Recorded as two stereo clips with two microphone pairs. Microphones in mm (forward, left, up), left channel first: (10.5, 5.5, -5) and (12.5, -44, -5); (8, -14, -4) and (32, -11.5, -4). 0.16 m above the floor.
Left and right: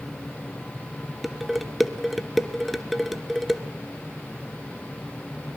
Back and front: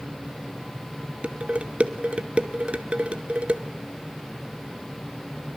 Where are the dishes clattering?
Straight ahead, 1.6 m.